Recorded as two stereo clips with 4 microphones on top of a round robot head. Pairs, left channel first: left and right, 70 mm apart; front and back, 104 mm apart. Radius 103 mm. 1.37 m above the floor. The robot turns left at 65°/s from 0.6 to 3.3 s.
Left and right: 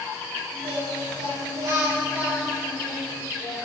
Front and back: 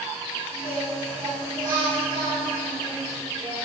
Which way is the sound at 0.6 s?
55° right.